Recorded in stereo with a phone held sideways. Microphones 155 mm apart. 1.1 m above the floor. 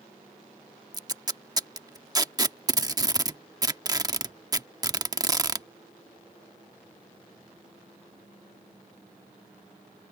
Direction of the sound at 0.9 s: 25° right (ahead or behind).